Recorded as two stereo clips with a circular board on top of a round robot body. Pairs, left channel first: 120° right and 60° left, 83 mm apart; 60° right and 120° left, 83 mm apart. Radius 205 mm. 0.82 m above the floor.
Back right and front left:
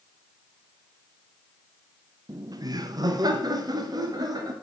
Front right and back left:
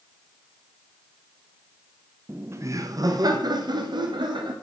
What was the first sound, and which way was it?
Laughter, 65° left.